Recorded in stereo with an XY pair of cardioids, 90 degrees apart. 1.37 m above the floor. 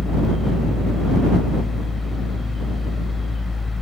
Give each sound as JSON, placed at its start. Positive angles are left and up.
{"t": 0.0, "sound": "a fan", "azimuth_deg": 35}